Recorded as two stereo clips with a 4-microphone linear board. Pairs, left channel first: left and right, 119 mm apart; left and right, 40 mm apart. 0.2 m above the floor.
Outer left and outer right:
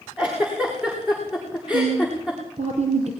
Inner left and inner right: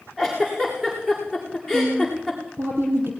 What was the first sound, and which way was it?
A giggle, 10° right (ahead or behind).